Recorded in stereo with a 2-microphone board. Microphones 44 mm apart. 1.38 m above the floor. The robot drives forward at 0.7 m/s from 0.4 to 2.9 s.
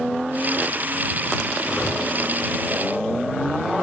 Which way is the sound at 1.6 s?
65° left (ahead or behind).